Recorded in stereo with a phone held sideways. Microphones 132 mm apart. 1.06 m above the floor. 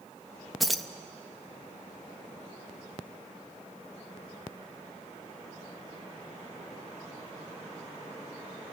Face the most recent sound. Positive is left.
turn(degrees=0)  # may be behind; listen again after turning